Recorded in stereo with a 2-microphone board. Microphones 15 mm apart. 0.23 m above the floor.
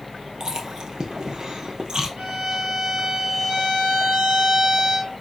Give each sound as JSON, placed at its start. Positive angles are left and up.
{"t": 0.4, "sound": "chewing", "side_deg": -50, "distance_m": 2.5}
{"t": 2.2, "sound": "a violin", "side_deg": -70, "distance_m": 3.5}